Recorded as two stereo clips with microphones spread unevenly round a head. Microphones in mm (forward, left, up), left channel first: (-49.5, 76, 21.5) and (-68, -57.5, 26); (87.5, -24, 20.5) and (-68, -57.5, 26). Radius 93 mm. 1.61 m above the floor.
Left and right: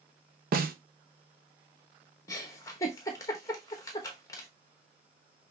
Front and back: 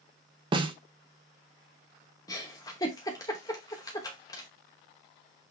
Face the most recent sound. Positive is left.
turn(degrees=50)